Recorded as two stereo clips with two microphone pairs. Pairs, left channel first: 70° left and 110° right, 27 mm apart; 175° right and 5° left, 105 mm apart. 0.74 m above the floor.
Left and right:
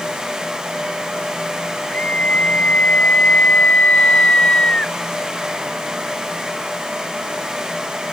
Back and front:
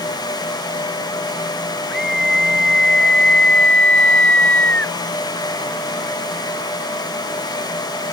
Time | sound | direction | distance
1.9 | a scream | 95° left | ?